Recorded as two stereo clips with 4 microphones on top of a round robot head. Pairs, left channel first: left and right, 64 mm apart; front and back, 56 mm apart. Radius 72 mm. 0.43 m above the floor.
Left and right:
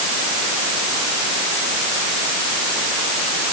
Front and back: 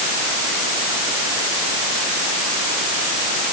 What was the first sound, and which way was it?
Only background noise.